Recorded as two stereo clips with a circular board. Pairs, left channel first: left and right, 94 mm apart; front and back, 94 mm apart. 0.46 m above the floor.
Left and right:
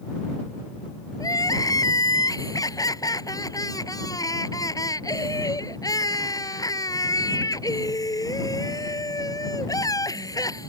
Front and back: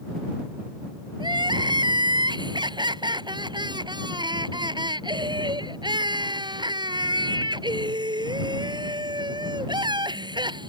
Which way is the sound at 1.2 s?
140° left.